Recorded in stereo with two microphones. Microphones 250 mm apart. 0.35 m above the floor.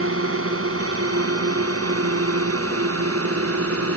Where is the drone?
60° right (ahead or behind); by 4.0 s 65° right (ahead or behind).